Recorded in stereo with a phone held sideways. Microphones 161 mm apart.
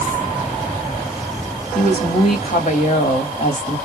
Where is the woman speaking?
55° left (ahead or behind), 2 m.